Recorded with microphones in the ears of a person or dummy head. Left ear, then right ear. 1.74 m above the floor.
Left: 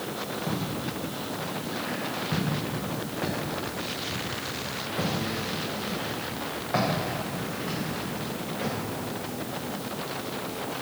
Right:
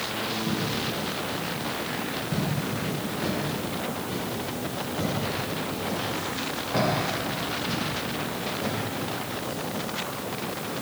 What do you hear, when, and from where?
0.5 s footsteps: 30° left (ahead or behind), 4.5 m; by 8.7 s 55° left (ahead or behind), 8 m